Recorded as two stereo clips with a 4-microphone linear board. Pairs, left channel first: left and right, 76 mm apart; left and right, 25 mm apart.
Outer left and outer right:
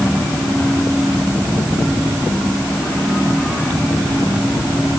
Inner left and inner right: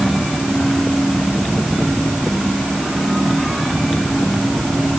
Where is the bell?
No bell in this recording.